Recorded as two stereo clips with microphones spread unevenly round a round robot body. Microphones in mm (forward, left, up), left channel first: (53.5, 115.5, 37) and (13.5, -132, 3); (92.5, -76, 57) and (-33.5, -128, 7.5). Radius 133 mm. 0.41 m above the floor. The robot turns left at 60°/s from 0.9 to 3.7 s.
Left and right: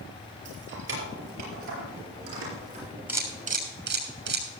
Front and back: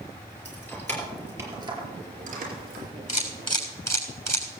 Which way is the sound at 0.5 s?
55° right.